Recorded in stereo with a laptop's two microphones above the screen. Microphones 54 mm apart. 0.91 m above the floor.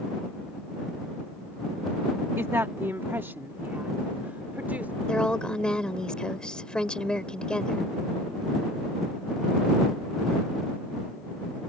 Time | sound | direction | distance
2.4 | a woman speaking | 55° right (ahead or behind) | ?
5.1 | a woman speaking | 15° left (ahead or behind) | ?